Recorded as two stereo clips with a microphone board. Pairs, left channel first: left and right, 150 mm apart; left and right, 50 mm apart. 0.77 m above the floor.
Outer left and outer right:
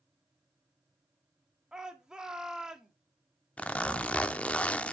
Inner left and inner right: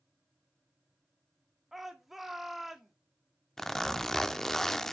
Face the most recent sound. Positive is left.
turn(degrees=10)  # may be behind; listen again after turning